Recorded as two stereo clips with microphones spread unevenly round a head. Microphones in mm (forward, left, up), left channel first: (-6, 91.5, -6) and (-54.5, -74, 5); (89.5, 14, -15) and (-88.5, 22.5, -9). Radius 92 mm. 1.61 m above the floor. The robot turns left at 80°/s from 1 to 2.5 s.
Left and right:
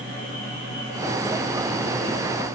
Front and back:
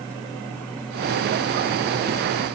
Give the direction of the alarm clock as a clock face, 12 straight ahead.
I don't hear an alarm clock.